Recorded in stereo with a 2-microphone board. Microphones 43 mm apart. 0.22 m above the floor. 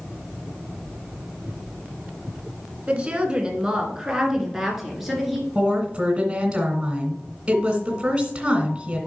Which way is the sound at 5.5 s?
20° right (ahead or behind).